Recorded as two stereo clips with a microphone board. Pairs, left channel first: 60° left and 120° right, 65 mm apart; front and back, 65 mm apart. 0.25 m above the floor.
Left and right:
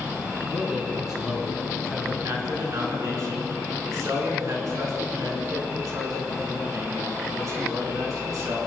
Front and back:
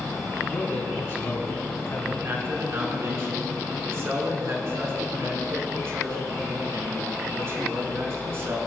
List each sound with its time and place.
0.5 s a man speaking: 45° right, 2.5 m; by 2.1 s 20° right, 2.5 m
2.2 s a man speaking: 140° right, 3.5 m